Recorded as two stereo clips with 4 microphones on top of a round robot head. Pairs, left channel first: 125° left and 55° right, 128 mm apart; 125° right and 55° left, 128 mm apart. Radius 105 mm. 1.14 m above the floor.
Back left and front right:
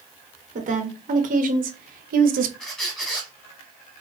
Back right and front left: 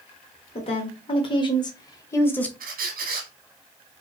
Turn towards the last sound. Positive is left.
turn(degrees=40)